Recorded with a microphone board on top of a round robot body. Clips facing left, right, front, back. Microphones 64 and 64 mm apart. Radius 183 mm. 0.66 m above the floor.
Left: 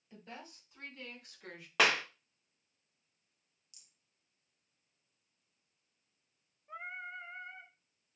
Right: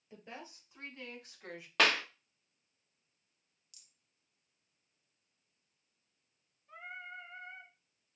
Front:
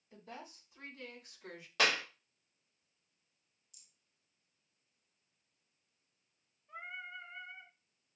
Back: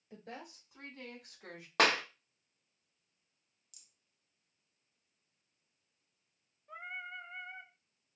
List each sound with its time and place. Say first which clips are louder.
0.1 s a woman speaking: right 1 dB, back 2 dB; 160° right, 4 m; by 1.7 s 175° right, 2 m
1.8 s a clap: even, back 3 dB; 170° left, 1.1 m
3.7 s a rattle: even, back 1 dB; 155° left, 1.0 m
6.7 s singing: left 3 dB, back 2 dB; 150° left, 0.6 m